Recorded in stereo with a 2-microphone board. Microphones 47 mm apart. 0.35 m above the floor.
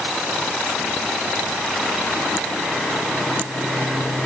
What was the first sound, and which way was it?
Only background noise.